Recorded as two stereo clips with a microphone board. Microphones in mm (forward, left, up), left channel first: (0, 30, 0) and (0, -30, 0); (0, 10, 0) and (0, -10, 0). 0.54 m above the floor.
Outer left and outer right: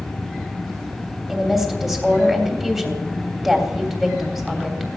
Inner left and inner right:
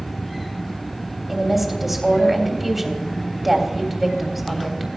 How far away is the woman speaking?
About 3 m.